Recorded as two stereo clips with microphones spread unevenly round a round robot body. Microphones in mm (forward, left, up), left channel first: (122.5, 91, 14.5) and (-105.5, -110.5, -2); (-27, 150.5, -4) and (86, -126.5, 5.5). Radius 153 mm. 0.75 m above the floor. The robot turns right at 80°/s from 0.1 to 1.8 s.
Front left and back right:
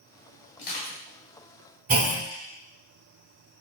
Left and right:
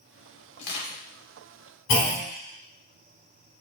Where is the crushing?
95° left, 1.6 m; by 1.0 s 130° left, 1.6 m.